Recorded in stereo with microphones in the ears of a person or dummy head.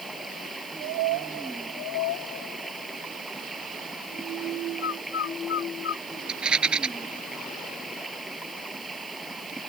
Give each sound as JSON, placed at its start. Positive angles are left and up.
{"t": 0.0, "sound": "running water", "side_deg": -5}
{"t": 4.8, "sound": "a bird", "side_deg": 75}
{"t": 6.3, "sound": "a rattle", "side_deg": -10}